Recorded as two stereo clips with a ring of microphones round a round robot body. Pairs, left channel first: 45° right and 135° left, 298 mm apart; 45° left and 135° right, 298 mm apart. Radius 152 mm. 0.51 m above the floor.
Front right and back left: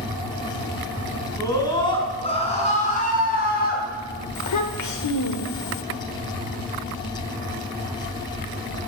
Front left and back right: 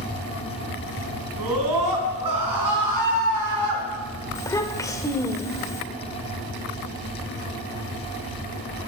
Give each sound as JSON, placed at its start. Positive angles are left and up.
{"t": 1.4, "sound": "a scream", "azimuth_deg": -125, "distance_m": 5.5}
{"t": 4.3, "sound": "a child speaking", "azimuth_deg": -35, "distance_m": 1.5}